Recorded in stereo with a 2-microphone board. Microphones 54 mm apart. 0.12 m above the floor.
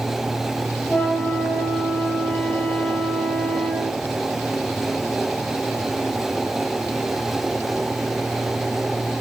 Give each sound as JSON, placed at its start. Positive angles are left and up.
{"t": 0.9, "sound": "a flute", "side_deg": 30, "distance_m": 5.0}